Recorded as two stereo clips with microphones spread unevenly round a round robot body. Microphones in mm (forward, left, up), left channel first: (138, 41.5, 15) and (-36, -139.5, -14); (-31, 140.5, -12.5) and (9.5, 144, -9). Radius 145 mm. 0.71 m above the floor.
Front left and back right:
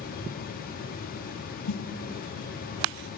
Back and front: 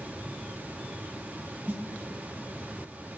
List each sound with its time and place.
1.7 s a snare drum: 40° left, 1.3 m